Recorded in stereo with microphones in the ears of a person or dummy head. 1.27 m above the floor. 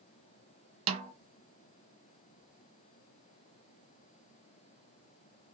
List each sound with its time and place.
0.9 s a snare drum: 35° right (ahead or behind), 0.7 m